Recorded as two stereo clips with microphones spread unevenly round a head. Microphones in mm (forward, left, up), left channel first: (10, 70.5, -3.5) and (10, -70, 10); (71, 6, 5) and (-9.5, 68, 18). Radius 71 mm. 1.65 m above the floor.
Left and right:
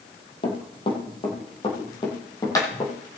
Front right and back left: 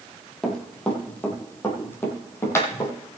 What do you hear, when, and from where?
0.4 s running footsteps: 45° left, 2.5 m; by 2.9 s 20° left, 3.5 m